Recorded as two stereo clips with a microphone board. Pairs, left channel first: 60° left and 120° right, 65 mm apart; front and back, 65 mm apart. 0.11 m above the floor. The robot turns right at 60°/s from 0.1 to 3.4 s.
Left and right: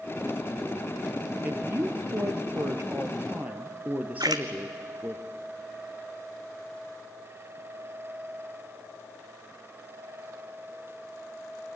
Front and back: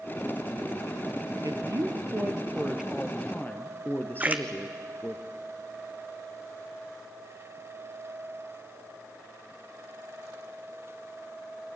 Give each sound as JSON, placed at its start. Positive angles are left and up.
{"t": 1.4, "sound": "a woman speaking", "azimuth_deg": -175, "distance_m": 2.0}
{"t": 4.2, "sound": "a splash", "azimuth_deg": -115, "distance_m": 1.2}